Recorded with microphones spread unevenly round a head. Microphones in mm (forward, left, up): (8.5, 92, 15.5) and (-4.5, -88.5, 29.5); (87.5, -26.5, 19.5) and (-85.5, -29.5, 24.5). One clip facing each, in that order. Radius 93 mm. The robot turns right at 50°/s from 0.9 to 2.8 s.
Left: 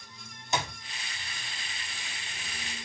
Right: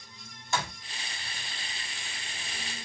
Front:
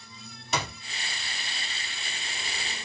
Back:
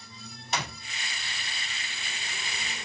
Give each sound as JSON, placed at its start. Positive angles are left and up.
{"t": 0.5, "sound": "a clap", "azimuth_deg": 15, "distance_m": 3.5}